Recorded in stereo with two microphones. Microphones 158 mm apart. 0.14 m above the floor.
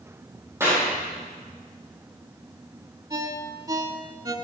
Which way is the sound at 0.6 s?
15° right (ahead or behind).